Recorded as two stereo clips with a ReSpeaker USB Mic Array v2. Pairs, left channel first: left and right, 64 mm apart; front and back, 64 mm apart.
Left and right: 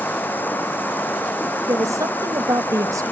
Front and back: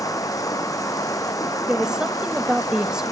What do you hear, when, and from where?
0.0 s running water: 30° left
1.7 s a woman speaking: 100° right